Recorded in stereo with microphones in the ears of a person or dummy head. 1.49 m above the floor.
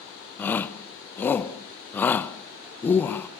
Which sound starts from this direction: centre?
A shout, at 0.4 s.